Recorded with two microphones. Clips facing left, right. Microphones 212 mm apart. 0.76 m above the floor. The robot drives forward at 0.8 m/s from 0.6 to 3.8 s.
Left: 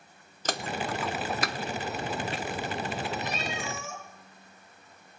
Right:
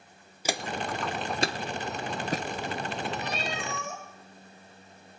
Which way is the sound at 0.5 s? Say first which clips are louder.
Even; 10° right (ahead or behind).